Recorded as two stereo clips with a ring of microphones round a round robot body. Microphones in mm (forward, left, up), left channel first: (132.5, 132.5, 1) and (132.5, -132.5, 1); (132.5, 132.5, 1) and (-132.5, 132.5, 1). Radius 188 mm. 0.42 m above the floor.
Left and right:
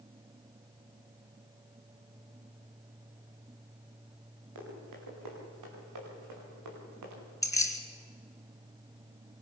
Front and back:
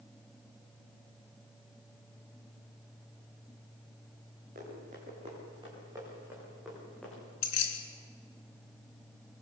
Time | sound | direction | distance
4.5 | running footsteps | 110° right | 8.5 m
7.4 | keys jangling | 10° left | 3.5 m